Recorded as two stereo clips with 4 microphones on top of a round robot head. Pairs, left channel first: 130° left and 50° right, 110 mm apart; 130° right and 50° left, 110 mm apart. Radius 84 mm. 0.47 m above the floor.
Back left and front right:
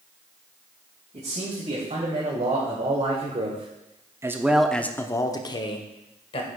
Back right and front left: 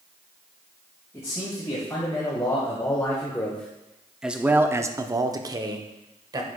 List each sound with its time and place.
1.1 s a man speaking: 65° right, 3 m; by 6.5 s 100° left, 1.8 m